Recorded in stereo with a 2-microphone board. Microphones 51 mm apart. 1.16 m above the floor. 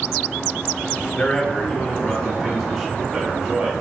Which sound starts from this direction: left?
A man speaking, at 1.1 s.